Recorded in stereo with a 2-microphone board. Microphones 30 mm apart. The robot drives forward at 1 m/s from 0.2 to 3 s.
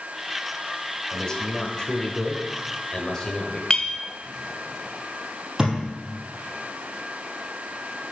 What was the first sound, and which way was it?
A man speaking, 20° left (ahead or behind).